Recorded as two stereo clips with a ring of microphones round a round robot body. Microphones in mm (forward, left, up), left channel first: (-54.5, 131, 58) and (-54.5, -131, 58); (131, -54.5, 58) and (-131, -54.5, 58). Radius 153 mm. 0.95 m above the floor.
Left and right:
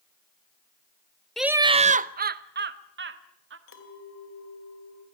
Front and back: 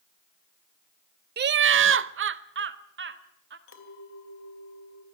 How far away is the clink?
About 2.5 m.